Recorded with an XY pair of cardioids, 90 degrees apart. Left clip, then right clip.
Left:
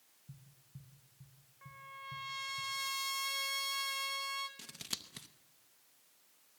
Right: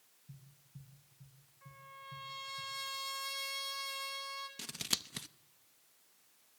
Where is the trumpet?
55° left, 3 m.